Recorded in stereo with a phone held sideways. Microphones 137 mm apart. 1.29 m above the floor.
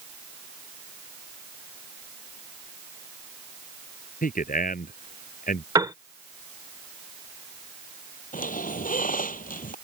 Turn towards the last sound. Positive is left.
turn(degrees=85)